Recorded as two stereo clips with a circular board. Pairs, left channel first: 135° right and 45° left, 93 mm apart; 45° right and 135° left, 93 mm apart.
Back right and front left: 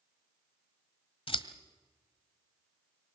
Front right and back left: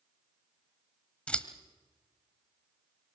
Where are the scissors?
125° right, 1.3 m.